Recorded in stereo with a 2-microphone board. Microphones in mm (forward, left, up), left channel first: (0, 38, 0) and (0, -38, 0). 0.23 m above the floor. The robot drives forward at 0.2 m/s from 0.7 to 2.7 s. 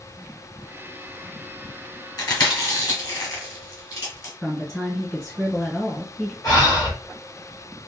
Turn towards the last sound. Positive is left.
turn(degrees=60)  # may be behind; listen again after turning